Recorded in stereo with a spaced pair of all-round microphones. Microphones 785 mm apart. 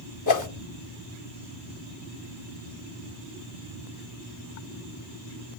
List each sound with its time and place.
0.3 s a whoosh: 25° left (ahead or behind), 0.7 m